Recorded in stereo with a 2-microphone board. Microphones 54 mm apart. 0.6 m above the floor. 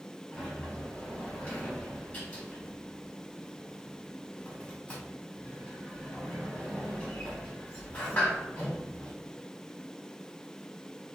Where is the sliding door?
30° left (ahead or behind), 1.5 m.